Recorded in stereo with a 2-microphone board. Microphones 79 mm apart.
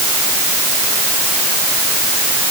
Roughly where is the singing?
No singing in this recording.